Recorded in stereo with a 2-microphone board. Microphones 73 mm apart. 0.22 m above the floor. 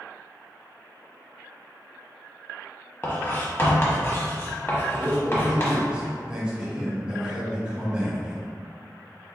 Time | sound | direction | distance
3.0 | writing | 30° left (ahead or behind) | 0.9 m
5.0 | a man speaking | 10° right (ahead or behind) | 1.0 m